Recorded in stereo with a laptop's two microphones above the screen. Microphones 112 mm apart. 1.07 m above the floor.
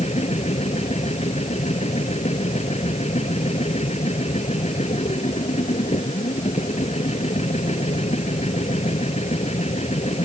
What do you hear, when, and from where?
0.0 s a machine running: 75° left (ahead or behind)